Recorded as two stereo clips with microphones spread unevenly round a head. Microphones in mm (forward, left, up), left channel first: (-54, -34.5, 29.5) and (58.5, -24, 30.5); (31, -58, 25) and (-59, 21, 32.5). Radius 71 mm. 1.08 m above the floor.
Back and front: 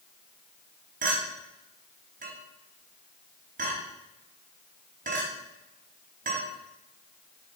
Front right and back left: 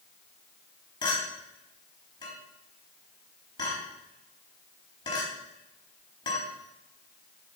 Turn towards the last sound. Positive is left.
turn(degrees=15)